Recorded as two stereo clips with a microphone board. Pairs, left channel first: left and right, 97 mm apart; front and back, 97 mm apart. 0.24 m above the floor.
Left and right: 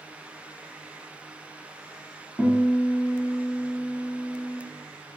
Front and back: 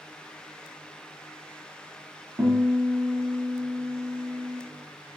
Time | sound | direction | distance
2.4 | a guitar | 150° left | 1.1 m